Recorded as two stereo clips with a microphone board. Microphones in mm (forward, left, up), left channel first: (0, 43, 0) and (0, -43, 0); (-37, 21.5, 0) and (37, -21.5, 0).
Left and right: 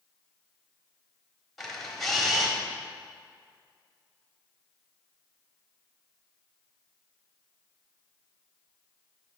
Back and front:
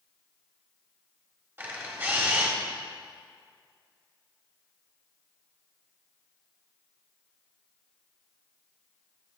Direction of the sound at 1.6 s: 5° left.